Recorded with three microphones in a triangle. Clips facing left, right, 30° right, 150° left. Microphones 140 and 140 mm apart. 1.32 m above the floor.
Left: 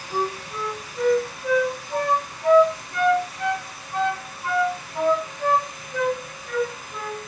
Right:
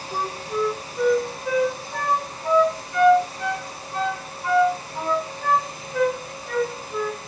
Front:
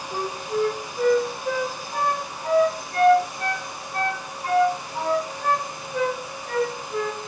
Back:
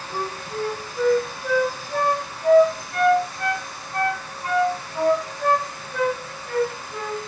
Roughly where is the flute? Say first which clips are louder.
Even, front 3 dB; behind left.